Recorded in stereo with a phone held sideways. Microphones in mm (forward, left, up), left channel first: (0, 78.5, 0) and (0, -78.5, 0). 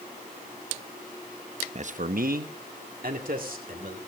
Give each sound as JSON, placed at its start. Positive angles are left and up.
{"t": 1.8, "sound": "a man speaking", "side_deg": -45, "distance_m": 0.6}